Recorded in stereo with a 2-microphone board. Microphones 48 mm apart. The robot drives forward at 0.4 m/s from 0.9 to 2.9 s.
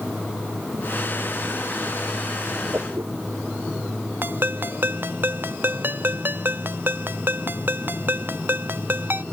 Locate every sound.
2.7 s a whoosh: 60° right (ahead or behind)
4.2 s a ringtone: 50° right (ahead or behind)